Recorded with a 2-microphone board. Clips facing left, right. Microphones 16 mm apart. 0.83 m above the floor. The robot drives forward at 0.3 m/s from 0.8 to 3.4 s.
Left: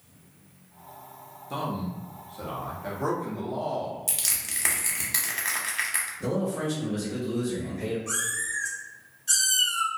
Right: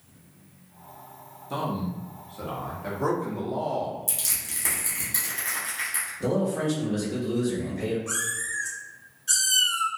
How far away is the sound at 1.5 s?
About 0.6 m.